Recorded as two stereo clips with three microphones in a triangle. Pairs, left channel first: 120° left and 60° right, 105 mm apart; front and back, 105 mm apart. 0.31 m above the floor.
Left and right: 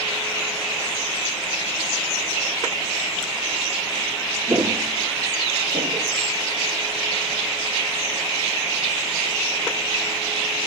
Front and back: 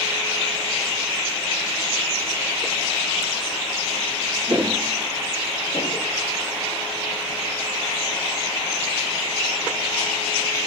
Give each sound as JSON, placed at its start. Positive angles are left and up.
{"t": 4.5, "sound": "footsteps", "azimuth_deg": -120, "distance_m": 0.6}